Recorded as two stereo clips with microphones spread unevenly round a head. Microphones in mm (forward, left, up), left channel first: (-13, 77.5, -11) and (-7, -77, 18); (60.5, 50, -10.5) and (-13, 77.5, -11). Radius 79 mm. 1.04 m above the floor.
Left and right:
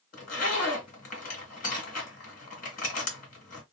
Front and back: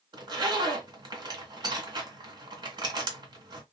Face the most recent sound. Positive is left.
turn(degrees=135)